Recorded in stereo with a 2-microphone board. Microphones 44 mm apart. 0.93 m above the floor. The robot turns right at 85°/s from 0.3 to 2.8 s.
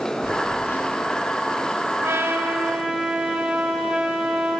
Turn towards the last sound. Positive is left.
turn(degrees=-25)